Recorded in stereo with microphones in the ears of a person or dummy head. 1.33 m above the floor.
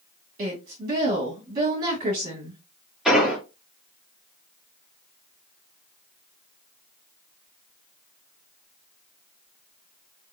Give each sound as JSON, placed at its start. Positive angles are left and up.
{"t": 0.4, "sound": "a woman speaking", "side_deg": -50, "distance_m": 1.8}
{"t": 3.0, "sound": "an explosion", "side_deg": 0, "distance_m": 1.5}